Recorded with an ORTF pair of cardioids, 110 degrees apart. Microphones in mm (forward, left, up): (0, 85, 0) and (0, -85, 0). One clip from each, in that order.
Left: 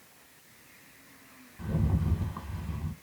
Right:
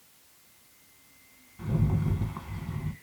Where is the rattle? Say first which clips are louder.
Right 2 dB; 5° right, 0.8 m.